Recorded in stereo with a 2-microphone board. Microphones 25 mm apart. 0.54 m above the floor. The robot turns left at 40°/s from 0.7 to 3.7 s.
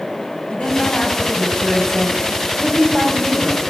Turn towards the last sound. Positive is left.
turn(degrees=-60)